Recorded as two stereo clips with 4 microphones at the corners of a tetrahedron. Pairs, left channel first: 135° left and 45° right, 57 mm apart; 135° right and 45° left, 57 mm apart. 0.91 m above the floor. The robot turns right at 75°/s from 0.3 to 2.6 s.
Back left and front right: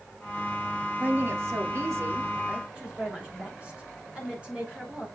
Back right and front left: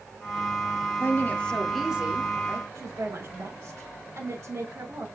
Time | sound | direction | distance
1.0 | a woman speaking | 100° right | 1.6 m
2.8 | a woman speaking | 20° left | 2.5 m